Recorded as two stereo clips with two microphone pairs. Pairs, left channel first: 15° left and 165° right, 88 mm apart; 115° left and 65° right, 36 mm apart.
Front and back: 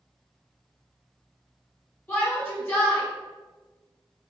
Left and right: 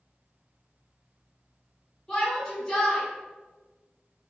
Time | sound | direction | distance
2.1 | a shout | 50° left | 1.7 m